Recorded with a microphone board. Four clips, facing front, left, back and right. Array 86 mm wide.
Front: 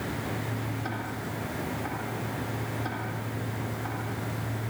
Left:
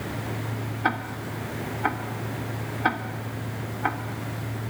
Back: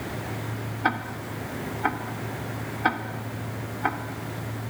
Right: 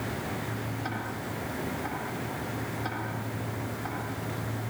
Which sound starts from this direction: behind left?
Ticking, at 0.8 s.